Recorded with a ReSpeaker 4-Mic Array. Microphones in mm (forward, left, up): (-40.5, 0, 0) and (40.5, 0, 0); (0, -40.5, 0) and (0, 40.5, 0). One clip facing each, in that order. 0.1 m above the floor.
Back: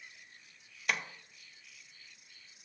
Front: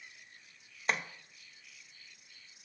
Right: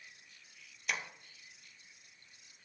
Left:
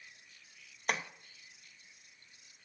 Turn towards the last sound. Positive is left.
turn(degrees=55)